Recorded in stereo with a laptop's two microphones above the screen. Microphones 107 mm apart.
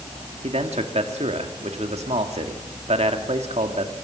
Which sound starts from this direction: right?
A man speaking, at 0.4 s.